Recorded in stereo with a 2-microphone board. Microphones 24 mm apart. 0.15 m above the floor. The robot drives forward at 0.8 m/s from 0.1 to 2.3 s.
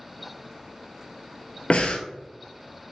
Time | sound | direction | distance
1.7 | breathing | 65° left (ahead or behind) | 0.5 m